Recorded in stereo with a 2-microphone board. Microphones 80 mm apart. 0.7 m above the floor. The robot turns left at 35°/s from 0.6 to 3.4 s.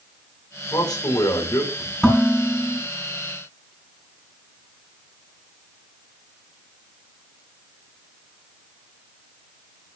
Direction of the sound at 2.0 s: 5° left (ahead or behind).